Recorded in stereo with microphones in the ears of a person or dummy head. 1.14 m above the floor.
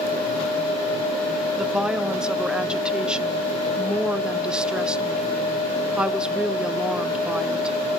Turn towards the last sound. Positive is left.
turn(degrees=0)  # may be behind; listen again after turning